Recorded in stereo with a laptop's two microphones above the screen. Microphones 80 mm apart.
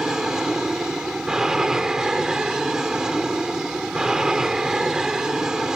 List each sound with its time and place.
0.0 s an aircraft: 10° right (ahead or behind)